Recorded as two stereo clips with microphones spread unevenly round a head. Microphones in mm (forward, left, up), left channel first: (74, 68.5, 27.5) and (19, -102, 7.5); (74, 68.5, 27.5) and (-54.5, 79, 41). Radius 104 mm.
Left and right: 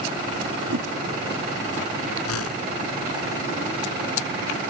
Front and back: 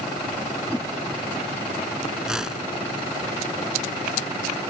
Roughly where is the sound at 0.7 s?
Right.